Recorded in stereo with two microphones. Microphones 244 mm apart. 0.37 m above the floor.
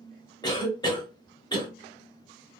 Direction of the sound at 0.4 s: 15° left (ahead or behind).